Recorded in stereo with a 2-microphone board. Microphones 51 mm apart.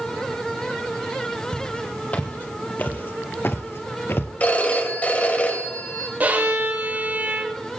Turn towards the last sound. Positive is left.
turn(degrees=-35)  # may be behind; listen again after turning